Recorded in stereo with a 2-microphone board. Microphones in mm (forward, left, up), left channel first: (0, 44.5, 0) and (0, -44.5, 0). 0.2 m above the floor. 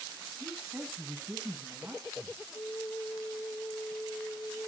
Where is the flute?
35° left (ahead or behind), 0.8 m.